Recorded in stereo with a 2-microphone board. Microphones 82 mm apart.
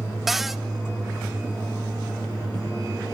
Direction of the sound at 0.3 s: 5° right (ahead or behind).